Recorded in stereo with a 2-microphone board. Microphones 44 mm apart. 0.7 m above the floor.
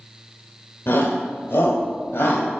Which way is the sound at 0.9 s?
60° left (ahead or behind).